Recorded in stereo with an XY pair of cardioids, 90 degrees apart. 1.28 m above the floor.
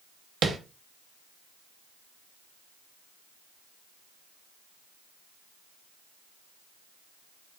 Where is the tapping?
55° right, 0.9 m.